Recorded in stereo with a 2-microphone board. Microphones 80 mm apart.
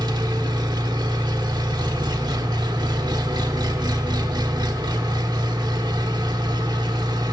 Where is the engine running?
60° right (ahead or behind), 1.0 m.